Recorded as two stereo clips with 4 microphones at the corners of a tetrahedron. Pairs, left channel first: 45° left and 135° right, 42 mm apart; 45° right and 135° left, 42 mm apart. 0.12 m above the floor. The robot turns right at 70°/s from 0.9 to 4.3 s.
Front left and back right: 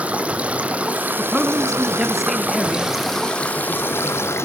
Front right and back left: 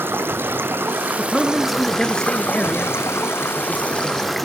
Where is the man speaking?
135° right, 1.2 m; by 4.3 s 85° left, 1.2 m.